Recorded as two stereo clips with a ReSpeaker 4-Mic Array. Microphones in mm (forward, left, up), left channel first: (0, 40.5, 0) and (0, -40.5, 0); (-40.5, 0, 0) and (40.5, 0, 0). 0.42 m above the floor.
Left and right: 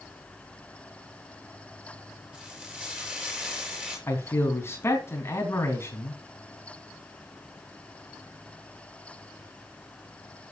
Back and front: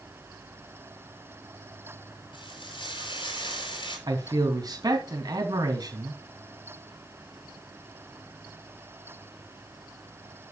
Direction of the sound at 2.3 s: 165° right.